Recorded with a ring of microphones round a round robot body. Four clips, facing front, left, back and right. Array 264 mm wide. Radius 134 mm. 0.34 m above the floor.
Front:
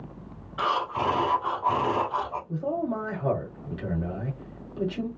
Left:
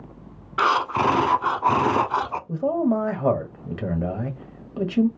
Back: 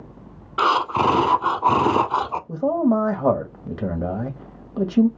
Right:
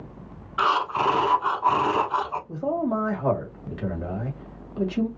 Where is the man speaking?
155° left, 1.4 m.